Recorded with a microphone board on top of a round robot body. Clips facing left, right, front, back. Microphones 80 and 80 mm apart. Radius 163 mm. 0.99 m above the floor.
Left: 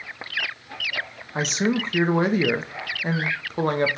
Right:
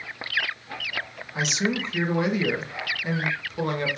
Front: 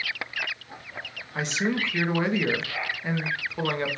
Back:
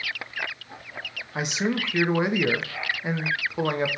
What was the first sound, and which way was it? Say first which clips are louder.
A man speaking: left 3 dB, even; 110° left.